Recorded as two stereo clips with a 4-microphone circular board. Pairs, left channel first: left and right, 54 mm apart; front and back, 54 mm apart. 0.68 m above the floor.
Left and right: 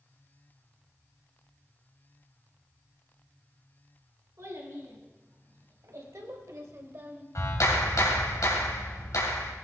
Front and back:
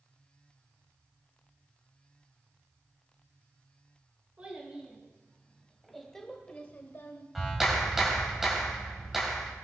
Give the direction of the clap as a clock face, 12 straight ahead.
9 o'clock.